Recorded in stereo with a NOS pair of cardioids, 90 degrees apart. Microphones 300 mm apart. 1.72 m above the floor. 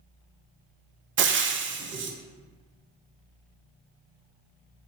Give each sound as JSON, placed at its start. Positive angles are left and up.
{"t": 1.2, "sound": "frying", "azimuth_deg": -40, "distance_m": 0.5}